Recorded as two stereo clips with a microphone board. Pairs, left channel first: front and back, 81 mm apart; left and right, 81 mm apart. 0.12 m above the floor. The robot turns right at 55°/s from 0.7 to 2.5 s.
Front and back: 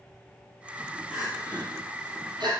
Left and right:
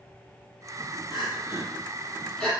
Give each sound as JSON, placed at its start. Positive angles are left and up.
{"t": 1.1, "sound": "crying", "azimuth_deg": 105, "distance_m": 4.5}